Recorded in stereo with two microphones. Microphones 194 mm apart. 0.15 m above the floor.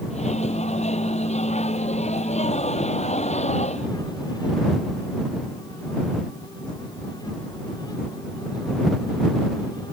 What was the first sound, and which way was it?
A microwave, 35° left (ahead or behind).